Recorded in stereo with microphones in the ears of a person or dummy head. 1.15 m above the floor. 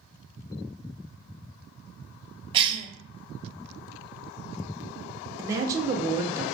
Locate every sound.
2.5 s a cough: 30° right (ahead or behind), 0.8 m
5.4 s a man speaking: 15° right (ahead or behind), 0.5 m